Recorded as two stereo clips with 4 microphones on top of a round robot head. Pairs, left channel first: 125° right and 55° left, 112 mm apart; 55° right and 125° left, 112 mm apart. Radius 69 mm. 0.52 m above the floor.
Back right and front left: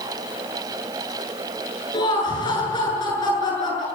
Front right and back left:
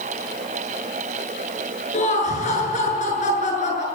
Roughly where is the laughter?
Right.